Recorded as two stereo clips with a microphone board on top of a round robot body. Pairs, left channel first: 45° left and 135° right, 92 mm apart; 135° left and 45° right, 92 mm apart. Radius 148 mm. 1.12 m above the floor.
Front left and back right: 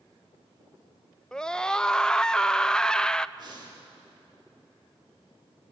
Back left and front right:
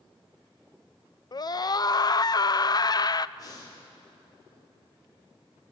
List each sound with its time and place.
1.3 s a scream: 125° left, 0.8 m
3.4 s breathing: 175° right, 4.5 m